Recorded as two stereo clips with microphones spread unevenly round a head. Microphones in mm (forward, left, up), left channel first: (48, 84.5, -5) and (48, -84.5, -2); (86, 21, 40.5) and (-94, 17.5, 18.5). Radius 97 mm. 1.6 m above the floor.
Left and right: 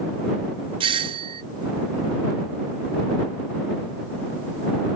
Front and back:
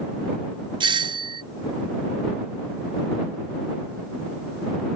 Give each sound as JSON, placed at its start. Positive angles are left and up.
{"t": 0.8, "sound": "a doorbell", "azimuth_deg": -140}